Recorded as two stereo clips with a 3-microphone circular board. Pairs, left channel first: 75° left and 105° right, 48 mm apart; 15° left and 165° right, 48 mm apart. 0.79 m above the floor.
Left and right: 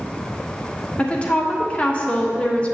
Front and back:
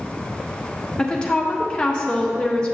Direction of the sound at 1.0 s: 65° left.